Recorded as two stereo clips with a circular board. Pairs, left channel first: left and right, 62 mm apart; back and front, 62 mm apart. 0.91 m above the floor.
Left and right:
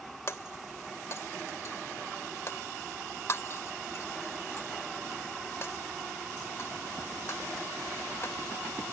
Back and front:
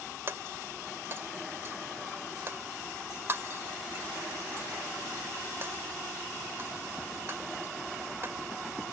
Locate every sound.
0.3 s breaking glass: 50° left